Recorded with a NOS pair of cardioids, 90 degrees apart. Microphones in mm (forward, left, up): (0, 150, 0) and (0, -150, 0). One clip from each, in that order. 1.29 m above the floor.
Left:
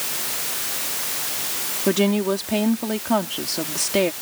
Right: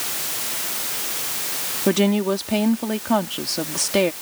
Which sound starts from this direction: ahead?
A woman speaking, at 1.9 s.